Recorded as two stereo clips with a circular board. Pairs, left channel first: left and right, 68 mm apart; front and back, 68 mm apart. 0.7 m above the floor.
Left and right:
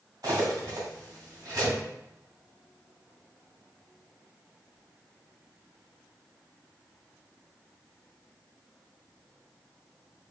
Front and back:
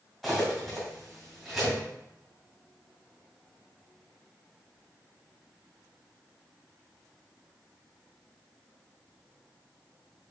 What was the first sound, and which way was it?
Cutlery clinking, 90° right.